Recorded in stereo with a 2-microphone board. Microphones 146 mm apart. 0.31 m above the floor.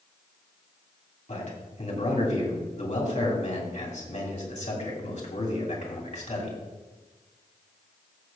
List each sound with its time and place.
1.3 s a man speaking: 55° left (ahead or behind), 2.5 m